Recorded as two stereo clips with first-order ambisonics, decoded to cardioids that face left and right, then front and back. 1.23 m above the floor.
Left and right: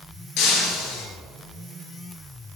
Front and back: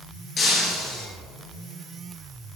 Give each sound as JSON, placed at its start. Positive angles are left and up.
{"t": 0.4, "sound": "breaking glass", "azimuth_deg": 60, "distance_m": 3.5}